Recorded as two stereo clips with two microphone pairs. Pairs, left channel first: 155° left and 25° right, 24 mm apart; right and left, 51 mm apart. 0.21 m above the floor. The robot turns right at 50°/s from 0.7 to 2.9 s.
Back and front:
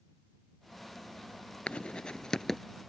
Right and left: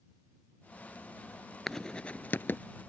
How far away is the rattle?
I don't hear a rattle.